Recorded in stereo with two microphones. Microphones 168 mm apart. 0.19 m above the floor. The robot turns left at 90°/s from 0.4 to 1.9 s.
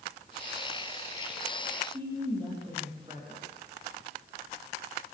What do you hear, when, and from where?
1.9 s a woman speaking: 30° right (ahead or behind), 7 m